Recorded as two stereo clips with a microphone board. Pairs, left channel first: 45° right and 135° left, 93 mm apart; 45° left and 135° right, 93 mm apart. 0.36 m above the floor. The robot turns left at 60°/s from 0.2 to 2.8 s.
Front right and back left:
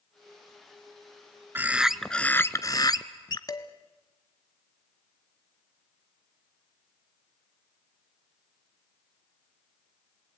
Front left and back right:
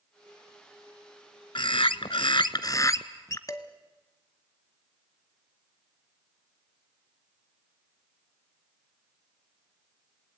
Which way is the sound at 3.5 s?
5° right.